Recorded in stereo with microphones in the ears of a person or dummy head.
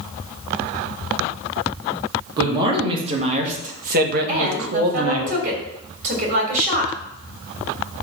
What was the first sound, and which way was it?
A man speaking, 25° right (ahead or behind).